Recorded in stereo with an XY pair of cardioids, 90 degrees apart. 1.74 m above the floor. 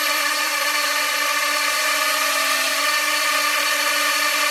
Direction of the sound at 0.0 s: 5° right.